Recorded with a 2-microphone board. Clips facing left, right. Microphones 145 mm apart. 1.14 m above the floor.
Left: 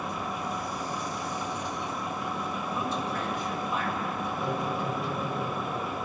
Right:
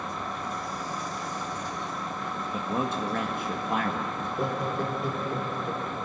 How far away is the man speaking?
About 1.7 m.